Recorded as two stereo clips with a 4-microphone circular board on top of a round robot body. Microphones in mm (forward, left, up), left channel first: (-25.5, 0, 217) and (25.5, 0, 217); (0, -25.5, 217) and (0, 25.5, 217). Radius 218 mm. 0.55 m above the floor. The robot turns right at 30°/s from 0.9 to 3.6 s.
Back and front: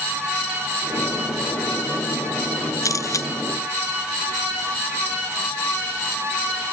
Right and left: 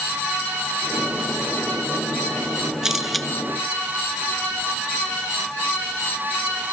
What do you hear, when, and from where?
2.8 s a camera shutter: 170° left; by 3.3 s 175° right